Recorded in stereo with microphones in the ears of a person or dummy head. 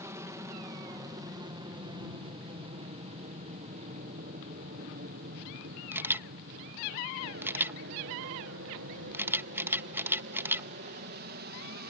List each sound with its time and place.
0.0 s an aircraft: 15° right (ahead or behind); by 11.9 s 50° right (ahead or behind)
5.9 s a camera shutter: 10° right (ahead or behind)